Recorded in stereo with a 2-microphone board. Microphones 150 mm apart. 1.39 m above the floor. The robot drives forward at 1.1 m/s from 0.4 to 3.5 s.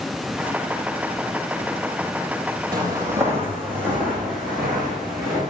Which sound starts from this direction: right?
Footsteps, at 2.7 s.